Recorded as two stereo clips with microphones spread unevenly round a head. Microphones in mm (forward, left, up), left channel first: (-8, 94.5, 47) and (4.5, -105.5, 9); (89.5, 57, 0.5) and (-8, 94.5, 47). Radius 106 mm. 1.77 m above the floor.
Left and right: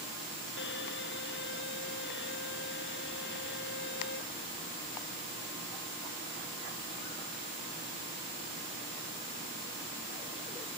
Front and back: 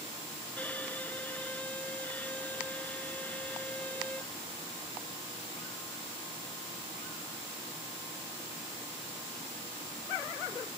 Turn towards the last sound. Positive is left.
turn(degrees=60)